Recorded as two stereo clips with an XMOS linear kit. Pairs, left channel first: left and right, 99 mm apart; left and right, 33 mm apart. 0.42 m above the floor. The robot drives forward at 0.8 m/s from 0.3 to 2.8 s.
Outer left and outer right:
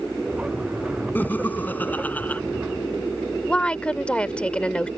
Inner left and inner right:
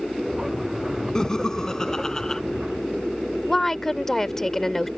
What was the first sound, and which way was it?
Laughter, 20° left (ahead or behind).